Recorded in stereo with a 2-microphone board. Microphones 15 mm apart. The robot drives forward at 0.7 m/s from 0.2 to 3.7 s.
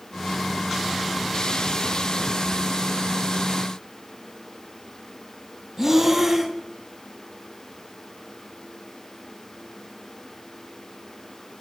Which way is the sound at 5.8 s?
20° right (ahead or behind).